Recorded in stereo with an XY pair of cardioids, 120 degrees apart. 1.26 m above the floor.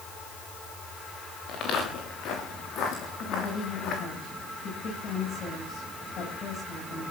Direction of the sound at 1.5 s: 65° left.